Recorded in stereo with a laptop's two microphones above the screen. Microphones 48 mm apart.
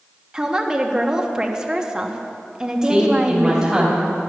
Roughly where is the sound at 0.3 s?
Centre.